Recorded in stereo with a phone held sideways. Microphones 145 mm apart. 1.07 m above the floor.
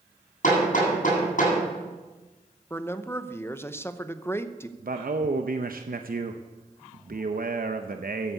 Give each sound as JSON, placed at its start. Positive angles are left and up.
{"t": 0.4, "sound": "hammering", "side_deg": 65, "distance_m": 8.5}
{"t": 2.7, "sound": "a man speaking", "side_deg": 15, "distance_m": 0.8}
{"t": 4.8, "sound": "a man speaking", "side_deg": -80, "distance_m": 0.8}